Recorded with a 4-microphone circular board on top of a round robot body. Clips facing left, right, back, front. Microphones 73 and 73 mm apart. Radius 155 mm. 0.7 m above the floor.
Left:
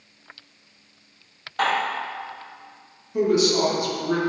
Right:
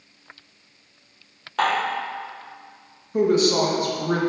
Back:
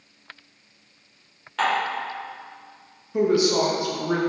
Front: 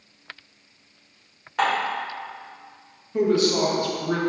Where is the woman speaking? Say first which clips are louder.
Right 1 dB, back 1 dB; 115° right, 1.0 m.